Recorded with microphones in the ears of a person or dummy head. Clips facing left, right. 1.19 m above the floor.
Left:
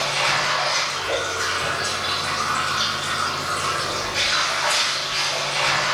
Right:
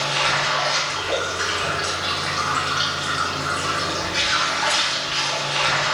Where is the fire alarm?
No fire alarm in this recording.